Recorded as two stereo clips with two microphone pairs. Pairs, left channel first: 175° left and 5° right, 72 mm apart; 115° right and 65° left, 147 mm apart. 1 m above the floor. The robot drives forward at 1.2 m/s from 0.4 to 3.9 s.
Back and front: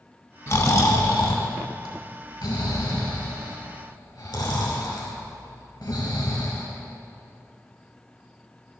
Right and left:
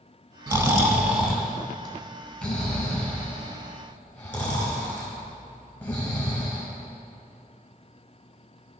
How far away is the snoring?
About 1.3 m.